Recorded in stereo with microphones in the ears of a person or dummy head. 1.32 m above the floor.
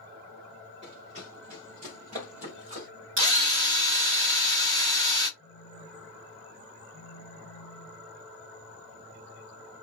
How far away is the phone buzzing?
About 2 m.